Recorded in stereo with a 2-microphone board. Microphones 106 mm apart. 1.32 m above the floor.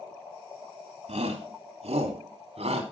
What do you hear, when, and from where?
1.1 s a shout: 90° right, 3 m